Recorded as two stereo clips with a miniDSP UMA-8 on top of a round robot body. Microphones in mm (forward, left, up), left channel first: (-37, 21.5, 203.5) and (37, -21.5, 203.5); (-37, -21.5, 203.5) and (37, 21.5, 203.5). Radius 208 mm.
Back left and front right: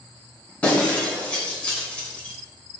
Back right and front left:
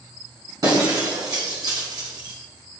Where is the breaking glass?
75° left, 3 m.